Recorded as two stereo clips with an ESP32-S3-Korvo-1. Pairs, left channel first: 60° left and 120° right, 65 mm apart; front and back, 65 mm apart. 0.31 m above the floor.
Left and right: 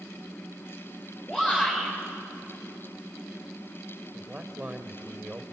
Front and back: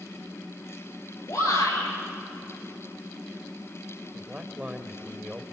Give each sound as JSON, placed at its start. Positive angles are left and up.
{"t": 1.3, "sound": "a shout", "azimuth_deg": -10, "distance_m": 7.0}
{"t": 4.1, "sound": "a man speaking", "azimuth_deg": -145, "distance_m": 1.0}